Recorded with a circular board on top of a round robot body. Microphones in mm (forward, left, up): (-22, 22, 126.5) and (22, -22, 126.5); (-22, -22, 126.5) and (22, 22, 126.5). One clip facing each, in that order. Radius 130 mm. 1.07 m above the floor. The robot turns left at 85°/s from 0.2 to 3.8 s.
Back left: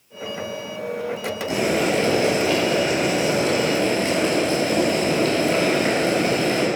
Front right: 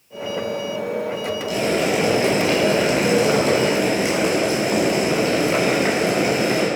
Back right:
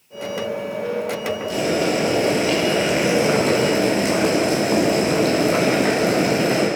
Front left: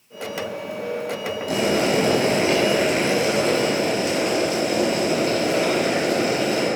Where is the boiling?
75° left, 9.5 m; by 6.7 s 120° right, 9.5 m.